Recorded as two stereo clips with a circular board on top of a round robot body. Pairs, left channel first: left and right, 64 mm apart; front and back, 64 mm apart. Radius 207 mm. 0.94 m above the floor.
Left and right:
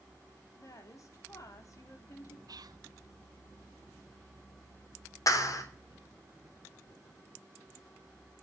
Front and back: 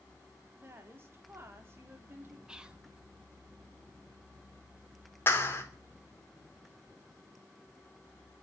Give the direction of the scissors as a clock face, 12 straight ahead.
No scissors in this recording.